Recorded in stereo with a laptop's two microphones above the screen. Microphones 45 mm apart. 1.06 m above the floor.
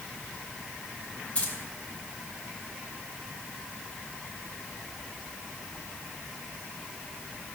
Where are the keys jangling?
25° left (ahead or behind), 4.5 m.